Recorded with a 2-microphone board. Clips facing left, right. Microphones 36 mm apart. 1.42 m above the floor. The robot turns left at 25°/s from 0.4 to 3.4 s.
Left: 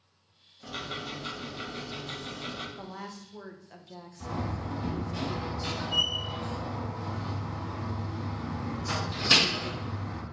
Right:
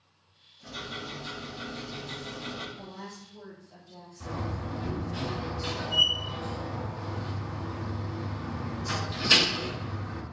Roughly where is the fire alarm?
No fire alarm in this recording.